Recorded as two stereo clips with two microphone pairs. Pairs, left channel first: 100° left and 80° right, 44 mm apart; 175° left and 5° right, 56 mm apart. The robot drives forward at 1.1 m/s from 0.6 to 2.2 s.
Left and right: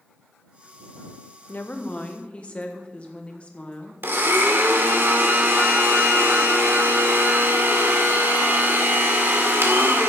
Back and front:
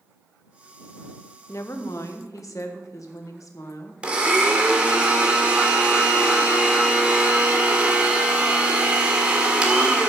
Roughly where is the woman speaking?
Behind left.